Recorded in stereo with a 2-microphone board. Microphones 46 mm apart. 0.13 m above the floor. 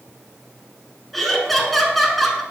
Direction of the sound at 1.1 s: 5° left (ahead or behind).